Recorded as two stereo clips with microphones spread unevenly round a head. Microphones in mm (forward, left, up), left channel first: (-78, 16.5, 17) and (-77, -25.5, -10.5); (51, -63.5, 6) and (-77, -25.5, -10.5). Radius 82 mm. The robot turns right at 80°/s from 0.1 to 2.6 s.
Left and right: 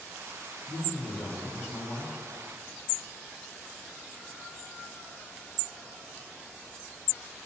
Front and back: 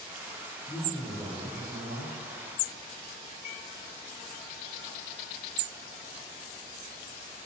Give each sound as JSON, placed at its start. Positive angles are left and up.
{"t": 0.7, "sound": "a man speaking", "azimuth_deg": 50, "distance_m": 4.0}